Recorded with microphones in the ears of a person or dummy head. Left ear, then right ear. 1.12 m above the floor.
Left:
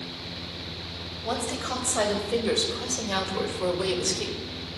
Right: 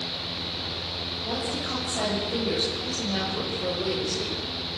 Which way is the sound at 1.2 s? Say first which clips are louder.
Left 3 dB; 45° left (ahead or behind).